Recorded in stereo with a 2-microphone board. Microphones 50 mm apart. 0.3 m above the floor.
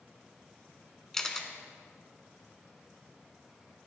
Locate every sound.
1.1 s a camera shutter: 10° left (ahead or behind), 0.8 m